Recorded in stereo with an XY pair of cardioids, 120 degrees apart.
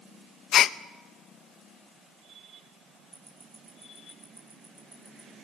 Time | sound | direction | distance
0.5 | a gasp | 55° left | 0.6 m
3.1 | ticking | 20° right | 7.5 m